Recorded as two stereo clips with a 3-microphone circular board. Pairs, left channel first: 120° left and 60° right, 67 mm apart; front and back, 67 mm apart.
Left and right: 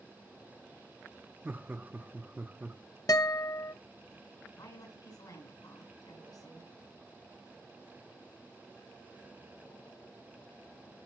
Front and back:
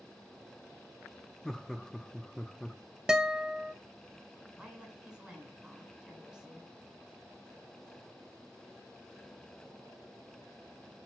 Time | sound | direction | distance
1.4 | laughter | 75° right | 0.8 m
3.1 | a guitar | 100° left | 0.6 m
4.5 | a woman speaking | 105° left | 5 m